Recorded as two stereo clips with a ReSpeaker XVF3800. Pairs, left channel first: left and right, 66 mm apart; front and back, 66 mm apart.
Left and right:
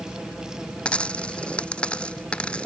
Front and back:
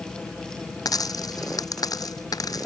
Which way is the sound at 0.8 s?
15° left.